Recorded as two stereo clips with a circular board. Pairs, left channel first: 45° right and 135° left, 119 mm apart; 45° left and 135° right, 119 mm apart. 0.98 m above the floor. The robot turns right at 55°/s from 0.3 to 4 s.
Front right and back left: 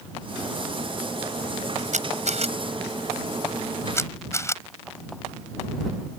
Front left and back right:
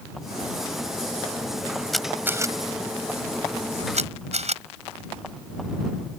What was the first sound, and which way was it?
A camera shutter, 135° left.